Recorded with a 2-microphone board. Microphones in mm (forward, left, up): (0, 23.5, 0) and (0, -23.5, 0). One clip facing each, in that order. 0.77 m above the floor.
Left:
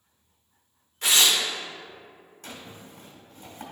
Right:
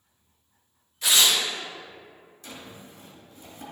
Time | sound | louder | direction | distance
1.0 | tearing paper | even | 50° left (ahead or behind) | 1.6 m
2.4 | a drawer | even | 65° left (ahead or behind) | 1.8 m